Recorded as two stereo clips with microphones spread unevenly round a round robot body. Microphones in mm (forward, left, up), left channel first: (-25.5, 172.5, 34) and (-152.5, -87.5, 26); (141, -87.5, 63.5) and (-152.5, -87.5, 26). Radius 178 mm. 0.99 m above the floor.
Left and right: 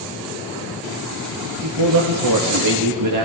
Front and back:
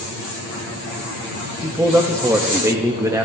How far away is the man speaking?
About 1.5 m.